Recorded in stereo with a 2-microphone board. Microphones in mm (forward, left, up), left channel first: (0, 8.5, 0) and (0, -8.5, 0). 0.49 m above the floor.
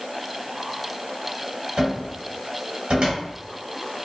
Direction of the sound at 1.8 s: 70° right (ahead or behind).